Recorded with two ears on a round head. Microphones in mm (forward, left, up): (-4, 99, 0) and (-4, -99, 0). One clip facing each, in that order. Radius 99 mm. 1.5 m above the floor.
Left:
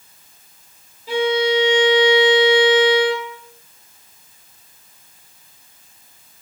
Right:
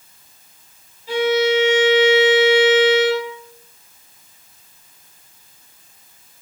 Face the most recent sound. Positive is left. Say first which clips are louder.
# right 1 dB
turn(degrees=70)  # may be behind; listen again after turning